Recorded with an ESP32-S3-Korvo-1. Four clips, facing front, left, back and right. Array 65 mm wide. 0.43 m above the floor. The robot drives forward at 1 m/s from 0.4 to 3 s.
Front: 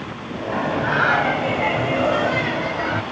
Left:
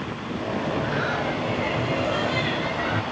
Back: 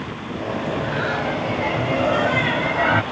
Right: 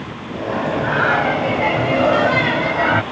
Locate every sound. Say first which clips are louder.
0.5 s singing: right 8 dB, front 5 dB; 45° right; by 3.0 s 120° right